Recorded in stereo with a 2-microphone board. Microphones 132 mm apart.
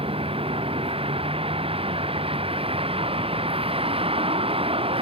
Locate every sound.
0.0 s a vehicle: 45° right (ahead or behind)